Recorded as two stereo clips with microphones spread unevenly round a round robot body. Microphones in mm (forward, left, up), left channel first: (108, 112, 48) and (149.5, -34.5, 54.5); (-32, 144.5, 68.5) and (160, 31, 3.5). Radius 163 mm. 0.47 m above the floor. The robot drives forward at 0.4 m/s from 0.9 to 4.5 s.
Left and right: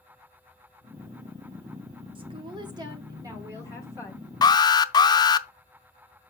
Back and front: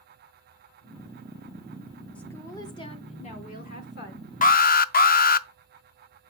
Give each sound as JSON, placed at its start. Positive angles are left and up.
{"t": 2.1, "sound": "a woman speaking", "azimuth_deg": -105, "distance_m": 0.8}
{"t": 4.4, "sound": "an alarm", "azimuth_deg": 95, "distance_m": 0.5}